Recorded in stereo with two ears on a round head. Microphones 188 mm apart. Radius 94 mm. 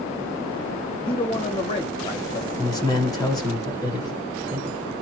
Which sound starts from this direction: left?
A man speaking, at 1.1 s.